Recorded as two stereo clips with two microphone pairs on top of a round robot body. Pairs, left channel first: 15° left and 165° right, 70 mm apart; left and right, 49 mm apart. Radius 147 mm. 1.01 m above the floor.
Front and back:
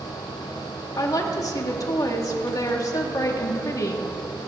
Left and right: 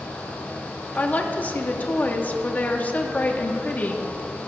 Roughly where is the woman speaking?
Ahead left.